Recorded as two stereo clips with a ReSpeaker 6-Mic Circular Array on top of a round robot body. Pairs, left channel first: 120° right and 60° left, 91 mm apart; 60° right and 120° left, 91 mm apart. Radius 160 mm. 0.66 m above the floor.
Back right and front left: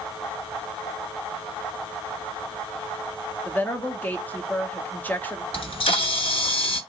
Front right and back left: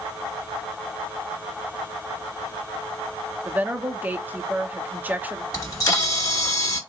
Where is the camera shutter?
110° right, 1.9 m.